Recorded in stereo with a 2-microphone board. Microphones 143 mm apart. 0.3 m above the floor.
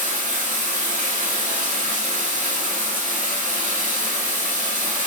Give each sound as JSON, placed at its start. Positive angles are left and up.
{"t": 0.0, "sound": "running water", "side_deg": -75, "distance_m": 2.5}